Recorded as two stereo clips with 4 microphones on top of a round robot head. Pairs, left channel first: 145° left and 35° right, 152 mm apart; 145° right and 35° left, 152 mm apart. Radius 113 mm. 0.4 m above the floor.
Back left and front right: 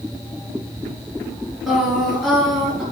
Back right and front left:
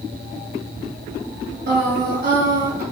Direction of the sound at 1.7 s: 50° left.